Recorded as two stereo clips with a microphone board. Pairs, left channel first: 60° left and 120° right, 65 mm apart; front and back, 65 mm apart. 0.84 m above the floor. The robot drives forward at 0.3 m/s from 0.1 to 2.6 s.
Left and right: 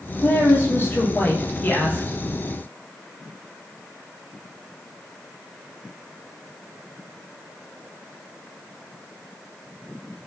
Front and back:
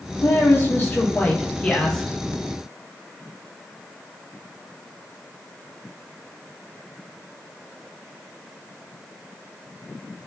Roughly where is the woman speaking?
Ahead left.